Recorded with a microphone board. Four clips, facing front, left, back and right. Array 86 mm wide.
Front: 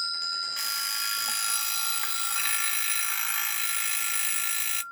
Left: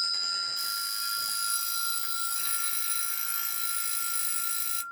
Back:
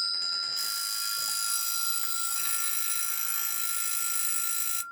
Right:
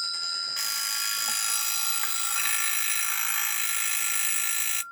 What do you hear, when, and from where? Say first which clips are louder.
0.6 s an alarm clock: right 1 dB, front 4 dB; 50° right, 0.6 m